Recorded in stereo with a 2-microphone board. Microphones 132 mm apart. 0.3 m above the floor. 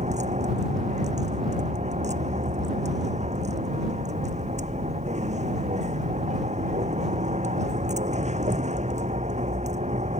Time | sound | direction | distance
0.0 | a vehicle | 65° right (ahead or behind) | ?